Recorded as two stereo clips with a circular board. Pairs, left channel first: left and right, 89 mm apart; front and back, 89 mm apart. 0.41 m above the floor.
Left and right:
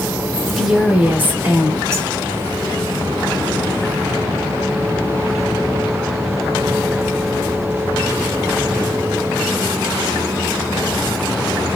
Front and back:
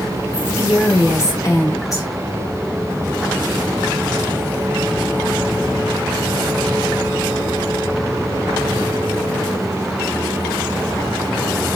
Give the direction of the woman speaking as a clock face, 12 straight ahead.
11 o'clock.